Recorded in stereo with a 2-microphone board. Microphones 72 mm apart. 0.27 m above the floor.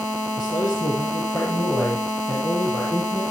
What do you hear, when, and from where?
0.4 s a man speaking: 75° left (ahead or behind), 4.5 m; by 3.2 s 60° left (ahead or behind), 7 m